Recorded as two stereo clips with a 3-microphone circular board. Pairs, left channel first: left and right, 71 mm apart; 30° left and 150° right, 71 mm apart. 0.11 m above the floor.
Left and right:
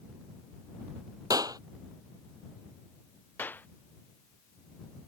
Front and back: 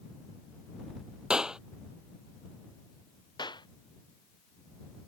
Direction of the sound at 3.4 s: 25° left.